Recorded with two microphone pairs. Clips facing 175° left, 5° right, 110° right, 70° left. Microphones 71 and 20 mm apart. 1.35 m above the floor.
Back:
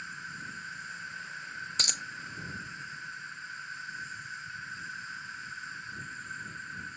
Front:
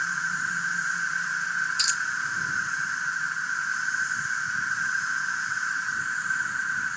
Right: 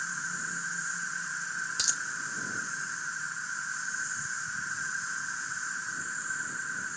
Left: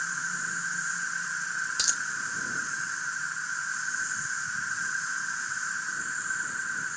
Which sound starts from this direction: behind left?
A dropped coin, at 1.8 s.